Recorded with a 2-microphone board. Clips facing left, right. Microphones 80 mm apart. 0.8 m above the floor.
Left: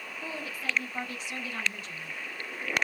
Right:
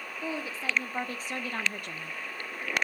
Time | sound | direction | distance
0.2 | a woman speaking | 25° right (ahead or behind) | 1.9 m